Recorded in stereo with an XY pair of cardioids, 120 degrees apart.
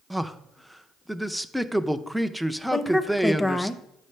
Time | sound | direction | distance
0.1 | a man speaking | straight ahead | 0.5 m
2.7 | a woman speaking | 10° left | 0.7 m